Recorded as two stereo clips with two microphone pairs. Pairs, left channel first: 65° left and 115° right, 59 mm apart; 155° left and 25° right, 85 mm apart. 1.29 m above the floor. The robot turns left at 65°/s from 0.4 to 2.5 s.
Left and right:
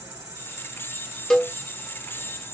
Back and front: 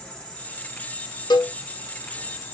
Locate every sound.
0.0 s an insect: 125° right, 1.7 m; by 2.5 s 100° left, 1.7 m
1.3 s a cowbell: 145° left, 0.5 m; by 1.5 s 130° left, 0.5 m